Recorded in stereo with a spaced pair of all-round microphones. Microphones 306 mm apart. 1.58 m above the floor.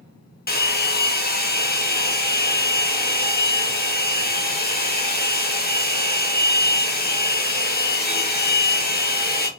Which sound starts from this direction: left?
A hair dryer, at 0.5 s.